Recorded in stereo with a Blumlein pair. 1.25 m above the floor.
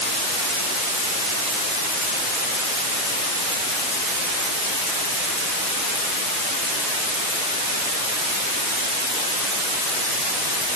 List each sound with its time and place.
Only background noise.